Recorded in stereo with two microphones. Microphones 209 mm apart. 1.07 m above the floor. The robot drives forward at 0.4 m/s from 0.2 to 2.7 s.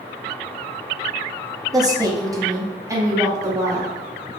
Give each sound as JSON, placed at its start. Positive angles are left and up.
{"t": 1.7, "sound": "a woman speaking", "side_deg": -20, "distance_m": 0.5}